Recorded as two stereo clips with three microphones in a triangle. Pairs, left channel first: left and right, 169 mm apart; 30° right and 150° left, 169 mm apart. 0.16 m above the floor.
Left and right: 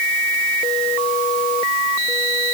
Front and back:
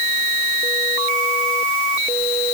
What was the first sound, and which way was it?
Only background noise.